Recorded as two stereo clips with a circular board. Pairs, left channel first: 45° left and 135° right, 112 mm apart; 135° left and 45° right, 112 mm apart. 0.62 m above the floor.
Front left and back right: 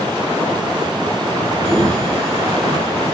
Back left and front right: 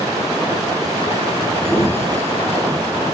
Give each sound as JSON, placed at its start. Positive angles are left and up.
{"t": 1.6, "sound": "a sliding door", "azimuth_deg": 170, "distance_m": 4.5}